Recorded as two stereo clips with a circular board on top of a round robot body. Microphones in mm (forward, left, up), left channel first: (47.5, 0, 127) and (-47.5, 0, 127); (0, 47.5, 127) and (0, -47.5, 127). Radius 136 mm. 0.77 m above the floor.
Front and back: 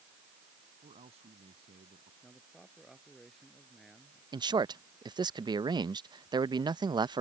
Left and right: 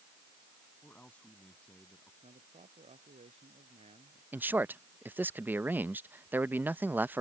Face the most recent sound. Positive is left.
turn(degrees=-155)